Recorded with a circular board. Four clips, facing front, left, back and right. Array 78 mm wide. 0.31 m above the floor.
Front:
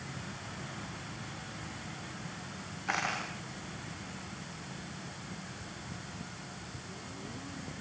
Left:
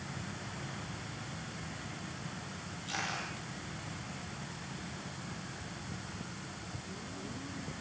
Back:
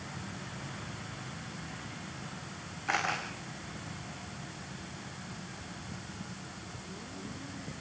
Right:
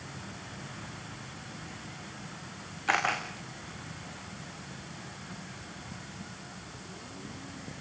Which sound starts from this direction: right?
A camera shutter, at 2.9 s.